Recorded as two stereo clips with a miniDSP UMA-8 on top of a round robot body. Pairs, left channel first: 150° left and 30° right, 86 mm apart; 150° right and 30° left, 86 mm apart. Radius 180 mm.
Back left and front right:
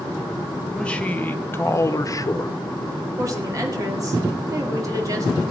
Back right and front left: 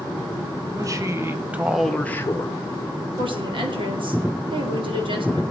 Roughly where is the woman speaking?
Ahead.